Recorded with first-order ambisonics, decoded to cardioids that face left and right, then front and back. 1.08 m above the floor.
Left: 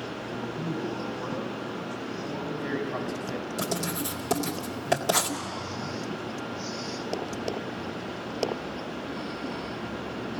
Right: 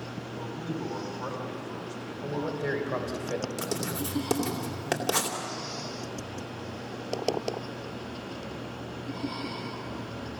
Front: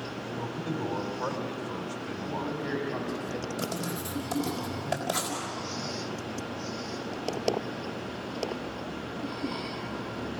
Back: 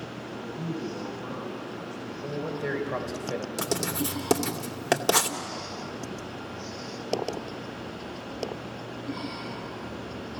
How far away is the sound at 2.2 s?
About 3.5 m.